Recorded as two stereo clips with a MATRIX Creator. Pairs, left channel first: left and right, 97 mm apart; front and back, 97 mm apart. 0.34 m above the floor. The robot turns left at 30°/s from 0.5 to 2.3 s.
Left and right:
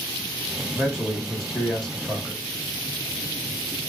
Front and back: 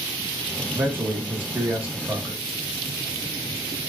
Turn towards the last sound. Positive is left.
turn(degrees=140)